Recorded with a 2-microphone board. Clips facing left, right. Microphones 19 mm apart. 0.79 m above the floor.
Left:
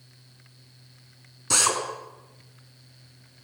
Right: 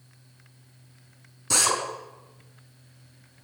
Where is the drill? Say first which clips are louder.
Even; 10° left (ahead or behind), 5.5 m.